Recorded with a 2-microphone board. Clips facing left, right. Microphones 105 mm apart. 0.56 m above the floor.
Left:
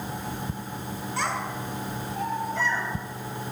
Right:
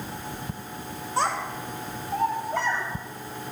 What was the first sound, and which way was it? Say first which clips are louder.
A child speaking: right 4 dB; 30° right (ahead or behind).